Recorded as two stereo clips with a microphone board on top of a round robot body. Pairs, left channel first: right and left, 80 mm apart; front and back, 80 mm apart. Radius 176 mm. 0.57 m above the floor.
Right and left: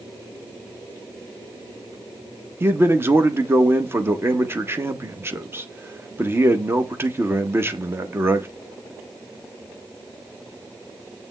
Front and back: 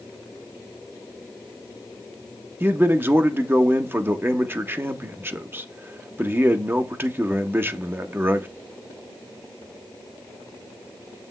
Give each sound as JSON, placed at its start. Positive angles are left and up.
{"t": 2.6, "sound": "a man speaking", "azimuth_deg": 135, "distance_m": 1.3}